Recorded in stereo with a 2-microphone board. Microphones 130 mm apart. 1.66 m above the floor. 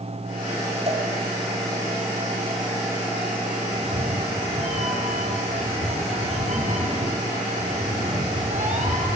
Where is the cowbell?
50° right (ahead or behind), 5 m.